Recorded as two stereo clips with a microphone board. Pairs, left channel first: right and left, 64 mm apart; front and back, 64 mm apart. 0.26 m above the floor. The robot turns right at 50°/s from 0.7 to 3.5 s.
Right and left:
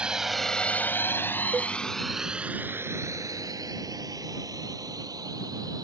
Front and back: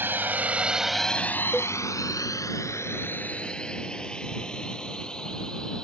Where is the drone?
155° left; by 5.8 s 80° left.